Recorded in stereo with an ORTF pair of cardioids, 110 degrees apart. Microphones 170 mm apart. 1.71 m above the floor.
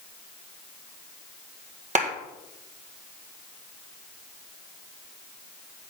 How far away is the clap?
About 1.8 m.